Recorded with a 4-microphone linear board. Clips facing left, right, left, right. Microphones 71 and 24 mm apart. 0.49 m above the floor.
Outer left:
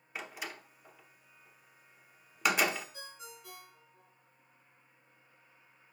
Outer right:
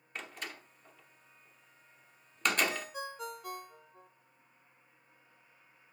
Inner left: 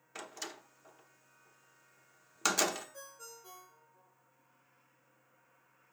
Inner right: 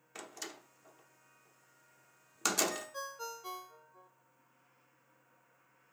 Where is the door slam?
5° left (ahead or behind), 0.9 m.